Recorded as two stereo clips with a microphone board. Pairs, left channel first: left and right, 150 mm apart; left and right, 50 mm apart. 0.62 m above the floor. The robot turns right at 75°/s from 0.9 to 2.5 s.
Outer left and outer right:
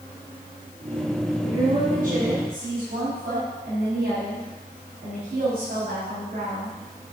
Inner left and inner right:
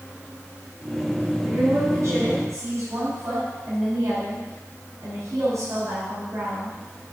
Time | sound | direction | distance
1.4 | a woman speaking | 140° right | 4 m